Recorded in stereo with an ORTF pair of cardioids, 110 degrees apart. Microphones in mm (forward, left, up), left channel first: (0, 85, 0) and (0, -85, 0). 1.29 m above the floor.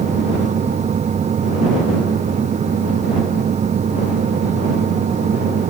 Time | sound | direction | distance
0.0 | a fan | 40° right | ?